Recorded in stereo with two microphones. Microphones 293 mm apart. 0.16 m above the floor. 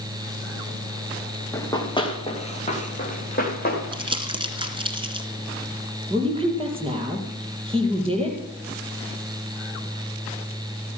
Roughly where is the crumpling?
Centre.